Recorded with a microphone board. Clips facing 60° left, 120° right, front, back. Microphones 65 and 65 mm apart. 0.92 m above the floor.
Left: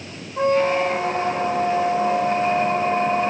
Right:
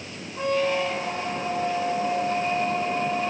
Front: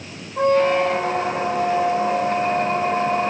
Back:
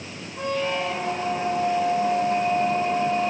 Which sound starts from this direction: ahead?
A squeak, at 0.4 s.